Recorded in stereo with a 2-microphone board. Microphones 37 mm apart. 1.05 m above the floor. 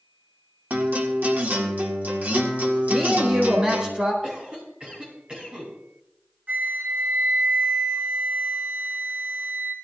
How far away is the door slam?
No door slam in this recording.